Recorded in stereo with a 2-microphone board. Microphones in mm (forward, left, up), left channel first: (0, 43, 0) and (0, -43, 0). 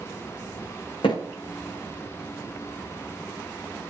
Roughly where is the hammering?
Left.